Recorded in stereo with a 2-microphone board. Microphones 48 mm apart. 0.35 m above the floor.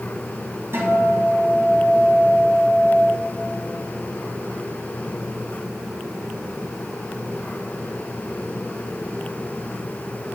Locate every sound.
0.7 s a guitar: 55° right (ahead or behind), 1.9 m